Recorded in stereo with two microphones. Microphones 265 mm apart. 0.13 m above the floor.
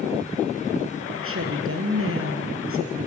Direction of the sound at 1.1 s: 55° right (ahead or behind).